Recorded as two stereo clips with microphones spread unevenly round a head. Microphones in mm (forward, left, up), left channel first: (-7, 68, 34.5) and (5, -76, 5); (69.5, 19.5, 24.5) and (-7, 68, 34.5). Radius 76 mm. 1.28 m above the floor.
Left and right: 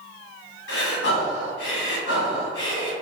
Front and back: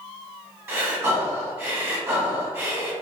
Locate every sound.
0.7 s breathing: 85° left, 1.6 m